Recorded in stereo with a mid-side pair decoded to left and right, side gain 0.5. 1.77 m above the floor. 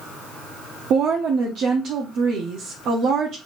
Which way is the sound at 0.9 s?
65° right.